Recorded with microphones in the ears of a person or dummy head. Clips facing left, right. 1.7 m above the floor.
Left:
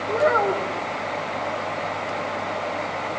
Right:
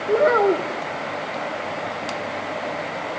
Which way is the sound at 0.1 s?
40° right (ahead or behind).